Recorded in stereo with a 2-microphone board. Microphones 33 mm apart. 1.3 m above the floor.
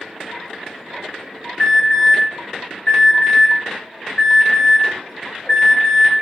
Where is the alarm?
35° left (ahead or behind), 1.3 m.